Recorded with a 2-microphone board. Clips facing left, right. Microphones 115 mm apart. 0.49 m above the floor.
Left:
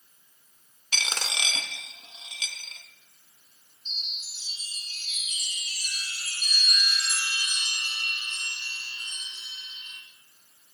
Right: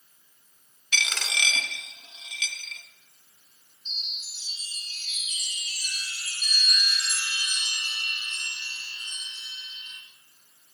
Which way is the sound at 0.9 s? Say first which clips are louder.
Right 1 dB; 35° left (ahead or behind).